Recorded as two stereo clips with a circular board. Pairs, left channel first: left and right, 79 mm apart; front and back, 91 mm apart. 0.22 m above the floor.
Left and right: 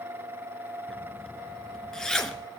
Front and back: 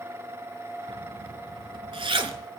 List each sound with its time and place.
0.9 s a zipper: 170° left, 1.0 m